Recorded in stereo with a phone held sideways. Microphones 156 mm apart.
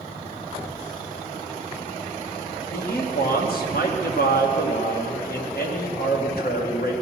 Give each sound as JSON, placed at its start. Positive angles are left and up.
{"t": 2.7, "sound": "a man speaking", "side_deg": 80, "distance_m": 2.0}